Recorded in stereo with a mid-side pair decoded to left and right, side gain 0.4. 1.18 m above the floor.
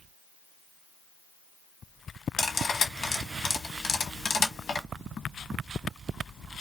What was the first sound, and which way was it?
Cutlery clinking, 60° left.